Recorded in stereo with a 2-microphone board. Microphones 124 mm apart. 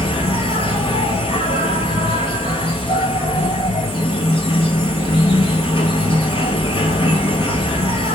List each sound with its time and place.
0.0 s an insect: 45° left (ahead or behind), 1.4 m